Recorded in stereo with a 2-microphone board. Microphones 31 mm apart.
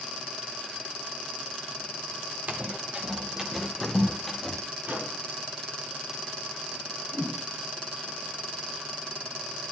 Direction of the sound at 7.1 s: 35° right (ahead or behind).